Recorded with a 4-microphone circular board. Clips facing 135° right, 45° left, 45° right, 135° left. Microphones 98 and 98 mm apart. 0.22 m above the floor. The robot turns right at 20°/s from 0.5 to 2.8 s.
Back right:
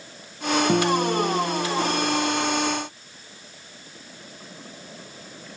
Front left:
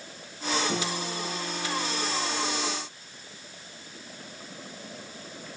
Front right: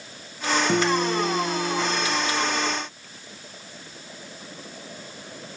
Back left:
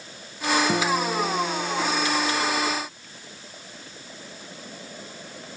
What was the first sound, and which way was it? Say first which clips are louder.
A guitar: back right 11 dB, front right 2 dB; 140° right.